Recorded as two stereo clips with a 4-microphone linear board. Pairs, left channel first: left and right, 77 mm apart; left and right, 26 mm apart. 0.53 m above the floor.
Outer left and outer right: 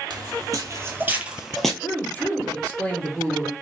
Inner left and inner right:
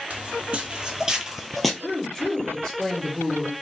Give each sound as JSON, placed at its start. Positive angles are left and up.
{"t": 0.1, "sound": "footsteps", "side_deg": -60, "distance_m": 1.0}
{"t": 1.8, "sound": "a woman speaking", "side_deg": 25, "distance_m": 1.0}